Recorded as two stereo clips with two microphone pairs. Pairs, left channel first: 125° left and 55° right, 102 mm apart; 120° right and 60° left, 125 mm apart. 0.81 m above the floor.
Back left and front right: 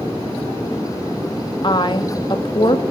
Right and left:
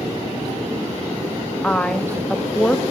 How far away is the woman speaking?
About 1.2 m.